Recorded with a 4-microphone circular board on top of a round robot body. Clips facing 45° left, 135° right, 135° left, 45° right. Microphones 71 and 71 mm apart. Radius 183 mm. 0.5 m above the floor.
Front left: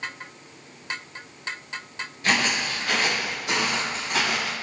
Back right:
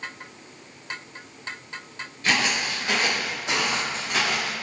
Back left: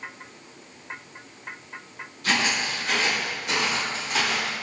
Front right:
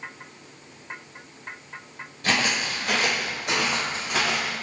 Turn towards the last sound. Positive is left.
turn(degrees=-80)